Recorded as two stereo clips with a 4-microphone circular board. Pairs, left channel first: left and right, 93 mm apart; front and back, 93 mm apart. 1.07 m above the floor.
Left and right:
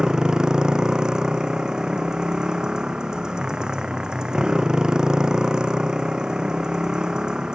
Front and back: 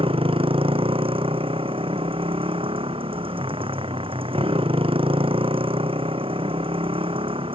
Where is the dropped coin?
No dropped coin in this recording.